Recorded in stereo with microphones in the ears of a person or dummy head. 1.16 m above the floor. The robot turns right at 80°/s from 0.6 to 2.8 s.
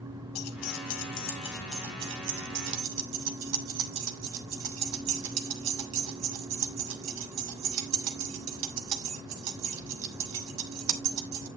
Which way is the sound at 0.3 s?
80° left.